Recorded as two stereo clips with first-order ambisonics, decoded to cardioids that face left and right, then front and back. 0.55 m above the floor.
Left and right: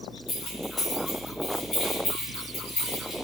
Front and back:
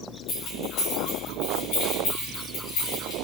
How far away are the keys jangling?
About 2 m.